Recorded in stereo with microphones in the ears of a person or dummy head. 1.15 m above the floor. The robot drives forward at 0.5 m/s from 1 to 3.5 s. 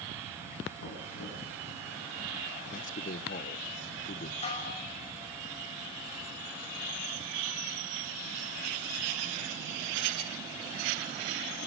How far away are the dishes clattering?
About 4 m.